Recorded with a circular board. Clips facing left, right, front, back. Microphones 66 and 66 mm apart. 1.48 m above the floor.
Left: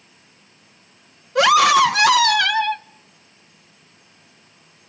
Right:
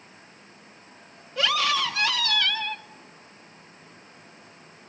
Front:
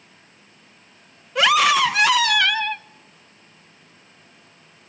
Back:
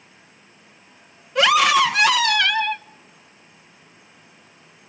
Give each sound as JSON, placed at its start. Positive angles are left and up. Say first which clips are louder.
{"t": 1.4, "sound": "a scream", "louder": "left 12 dB, back 1 dB", "azimuth_deg": 90, "distance_m": 1.2}